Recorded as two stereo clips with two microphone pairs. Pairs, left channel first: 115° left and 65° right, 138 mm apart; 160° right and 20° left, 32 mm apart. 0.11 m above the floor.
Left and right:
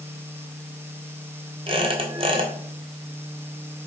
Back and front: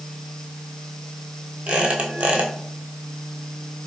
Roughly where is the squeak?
Ahead.